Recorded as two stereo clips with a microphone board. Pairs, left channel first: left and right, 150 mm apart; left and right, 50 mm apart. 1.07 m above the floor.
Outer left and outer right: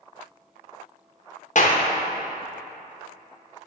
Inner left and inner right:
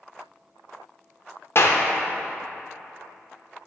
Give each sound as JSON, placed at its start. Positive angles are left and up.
{"t": 1.6, "sound": "a clap", "side_deg": 55, "distance_m": 0.8}